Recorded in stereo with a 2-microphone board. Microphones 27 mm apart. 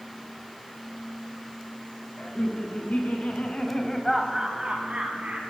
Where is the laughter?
65° left (ahead or behind), 3.5 m; by 5.5 s 55° right (ahead or behind), 2 m.